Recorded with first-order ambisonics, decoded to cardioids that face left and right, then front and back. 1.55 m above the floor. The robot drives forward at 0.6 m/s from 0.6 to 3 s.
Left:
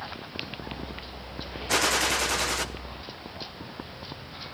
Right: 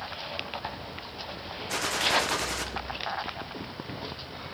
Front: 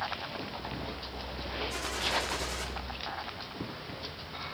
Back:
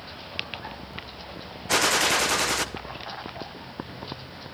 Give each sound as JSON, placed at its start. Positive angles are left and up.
{"t": 1.7, "sound": "a gunshot", "azimuth_deg": 155, "distance_m": 0.5}